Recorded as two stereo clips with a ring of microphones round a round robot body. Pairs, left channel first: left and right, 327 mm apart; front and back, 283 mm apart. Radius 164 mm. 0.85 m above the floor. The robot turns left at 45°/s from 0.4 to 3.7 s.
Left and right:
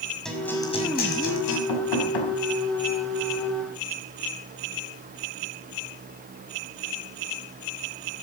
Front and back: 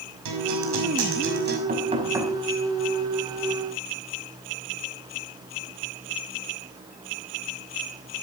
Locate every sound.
0.2 s a guitar: straight behind, 6 m; by 1.6 s 125° left, 6 m
1.7 s knocking: 125° left, 5.5 m; by 2.4 s 90° left, 5.5 m